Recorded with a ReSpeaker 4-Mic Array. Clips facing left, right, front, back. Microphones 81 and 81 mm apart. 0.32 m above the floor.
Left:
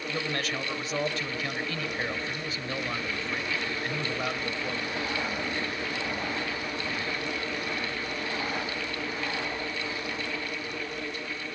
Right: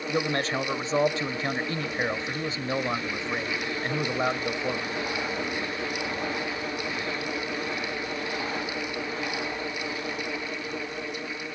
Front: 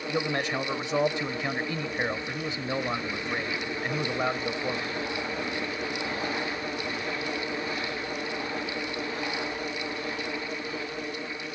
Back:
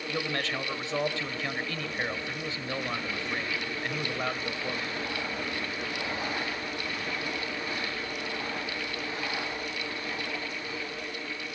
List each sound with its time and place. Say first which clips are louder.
0.1 s a man speaking: right 6 dB, front 4 dB; 60° right, 1.0 m